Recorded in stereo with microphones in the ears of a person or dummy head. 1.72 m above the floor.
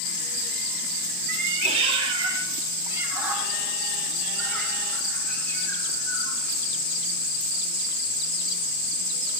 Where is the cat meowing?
40° right (ahead or behind), 2 m; by 6.4 s 20° left (ahead or behind), 4.5 m.